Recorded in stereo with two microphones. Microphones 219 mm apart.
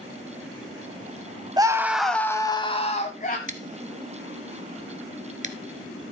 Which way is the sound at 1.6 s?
15° right (ahead or behind).